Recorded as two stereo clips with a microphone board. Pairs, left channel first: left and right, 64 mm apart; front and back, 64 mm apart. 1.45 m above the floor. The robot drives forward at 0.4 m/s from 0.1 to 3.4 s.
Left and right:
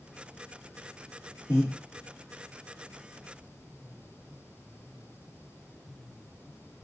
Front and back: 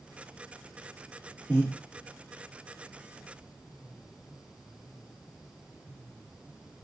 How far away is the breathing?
About 1.2 m.